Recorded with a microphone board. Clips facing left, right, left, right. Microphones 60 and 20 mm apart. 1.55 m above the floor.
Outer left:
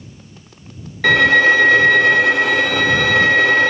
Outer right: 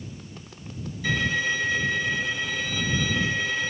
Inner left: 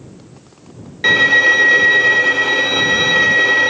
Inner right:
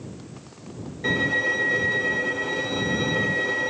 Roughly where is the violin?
Left.